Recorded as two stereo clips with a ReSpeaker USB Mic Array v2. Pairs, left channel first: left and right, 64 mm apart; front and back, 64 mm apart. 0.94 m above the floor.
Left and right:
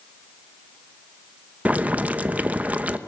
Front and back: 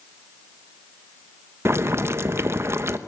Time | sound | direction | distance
1.6 | boiling | 150° right | 0.9 m